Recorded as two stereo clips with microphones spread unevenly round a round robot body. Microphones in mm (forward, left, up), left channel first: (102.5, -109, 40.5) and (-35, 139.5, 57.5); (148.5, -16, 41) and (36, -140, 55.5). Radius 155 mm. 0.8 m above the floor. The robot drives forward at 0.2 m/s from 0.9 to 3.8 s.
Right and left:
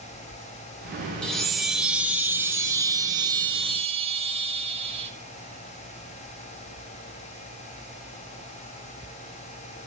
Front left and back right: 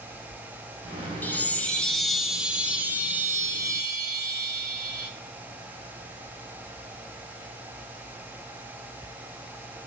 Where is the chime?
10° left, 0.7 m; by 5.1 s 170° left, 0.8 m.